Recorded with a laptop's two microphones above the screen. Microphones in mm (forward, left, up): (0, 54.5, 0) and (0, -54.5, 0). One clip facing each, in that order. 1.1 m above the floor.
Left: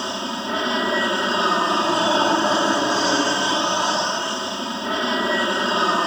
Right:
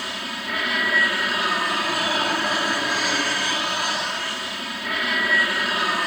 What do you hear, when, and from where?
0.0 s an aircraft: 25° left (ahead or behind)